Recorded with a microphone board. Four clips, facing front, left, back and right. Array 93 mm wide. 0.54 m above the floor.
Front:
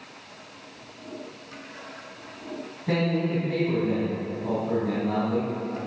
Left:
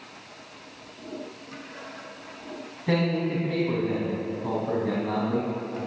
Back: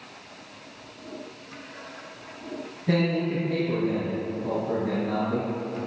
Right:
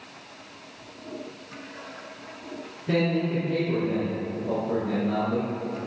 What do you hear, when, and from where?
2.9 s a man speaking: 80° left, 3.5 m